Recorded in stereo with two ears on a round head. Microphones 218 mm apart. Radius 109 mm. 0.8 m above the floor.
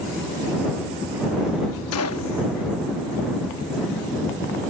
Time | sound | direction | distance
1.9 | a gunshot | 65° left (ahead or behind) | ?